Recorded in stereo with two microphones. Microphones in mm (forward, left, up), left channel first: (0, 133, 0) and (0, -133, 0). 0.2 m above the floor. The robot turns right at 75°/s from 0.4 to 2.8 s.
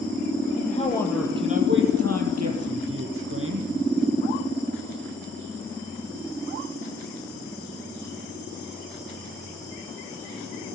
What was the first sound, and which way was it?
A man speaking, 135° left.